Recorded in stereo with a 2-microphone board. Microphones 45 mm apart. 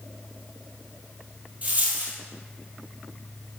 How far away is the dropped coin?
About 1.7 m.